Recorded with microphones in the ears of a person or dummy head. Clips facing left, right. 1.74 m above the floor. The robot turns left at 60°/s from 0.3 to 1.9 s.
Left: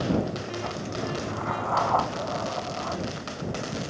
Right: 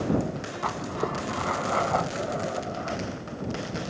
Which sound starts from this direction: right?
Writing, at 0.6 s.